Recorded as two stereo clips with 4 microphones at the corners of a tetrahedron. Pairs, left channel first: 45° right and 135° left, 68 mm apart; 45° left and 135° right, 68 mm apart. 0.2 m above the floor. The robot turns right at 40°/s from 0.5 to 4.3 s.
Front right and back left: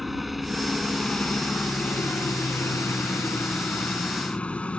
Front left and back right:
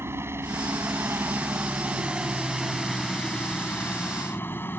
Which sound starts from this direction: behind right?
A helicopter, at 0.0 s.